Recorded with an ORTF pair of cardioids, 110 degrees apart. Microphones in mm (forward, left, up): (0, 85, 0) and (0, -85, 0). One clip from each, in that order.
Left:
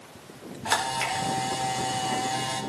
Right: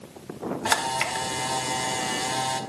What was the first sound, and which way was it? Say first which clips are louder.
A camera shutter: right 1 dB; 45° right.